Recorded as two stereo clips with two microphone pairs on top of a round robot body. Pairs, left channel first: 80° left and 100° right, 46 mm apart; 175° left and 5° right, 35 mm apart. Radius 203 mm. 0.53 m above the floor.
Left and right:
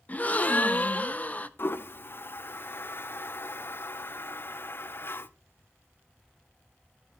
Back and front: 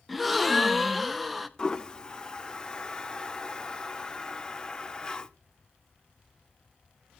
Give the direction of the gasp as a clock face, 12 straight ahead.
9 o'clock.